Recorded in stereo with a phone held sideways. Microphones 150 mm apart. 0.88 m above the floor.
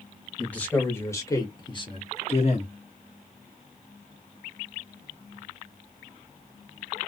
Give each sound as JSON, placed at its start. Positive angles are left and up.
{"t": 0.4, "sound": "a man speaking", "side_deg": 5, "distance_m": 1.6}